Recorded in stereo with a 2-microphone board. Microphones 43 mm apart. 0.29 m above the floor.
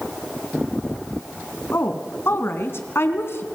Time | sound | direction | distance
1.7 | a woman speaking | 65° left (ahead or behind) | 2.5 m